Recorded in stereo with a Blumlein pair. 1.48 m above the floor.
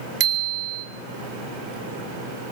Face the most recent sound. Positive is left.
turn(degrees=-40)